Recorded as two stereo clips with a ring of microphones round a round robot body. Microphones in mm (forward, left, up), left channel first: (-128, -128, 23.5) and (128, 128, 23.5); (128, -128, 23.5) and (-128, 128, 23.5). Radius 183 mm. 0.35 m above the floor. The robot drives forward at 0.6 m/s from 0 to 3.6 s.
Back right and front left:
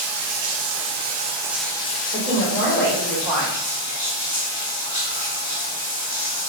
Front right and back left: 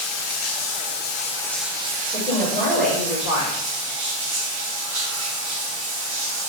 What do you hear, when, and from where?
0.0 s running water: straight ahead, 1.1 m; by 6.5 s straight behind, 1.3 m
2.1 s a woman speaking: 95° right, 1.3 m; by 3.6 s 150° right, 1.6 m